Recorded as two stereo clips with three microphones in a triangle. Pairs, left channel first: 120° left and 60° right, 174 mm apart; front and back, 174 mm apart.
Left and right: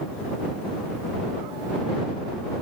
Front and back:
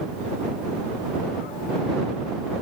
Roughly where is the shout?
No shout in this recording.